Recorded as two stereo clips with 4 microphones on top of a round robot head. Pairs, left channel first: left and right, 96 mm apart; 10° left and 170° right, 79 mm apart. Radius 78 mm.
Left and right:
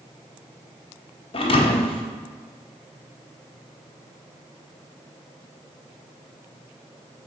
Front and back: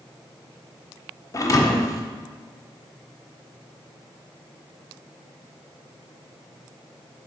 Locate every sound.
1.3 s a thud: 60° left, 0.8 m